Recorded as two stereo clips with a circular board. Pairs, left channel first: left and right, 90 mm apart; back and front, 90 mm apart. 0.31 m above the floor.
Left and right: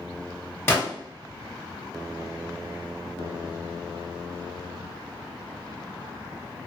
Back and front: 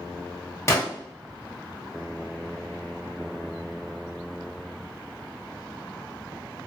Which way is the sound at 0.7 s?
140° left.